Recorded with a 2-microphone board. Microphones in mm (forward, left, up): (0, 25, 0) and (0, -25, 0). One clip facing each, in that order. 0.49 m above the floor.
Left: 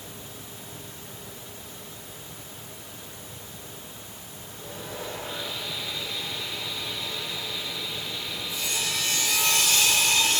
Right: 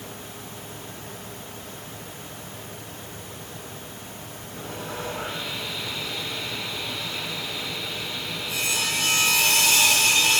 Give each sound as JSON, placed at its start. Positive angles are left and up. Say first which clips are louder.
{"t": 4.5, "sound": "sawing", "louder": "right 4 dB", "side_deg": -80, "distance_m": 5.5}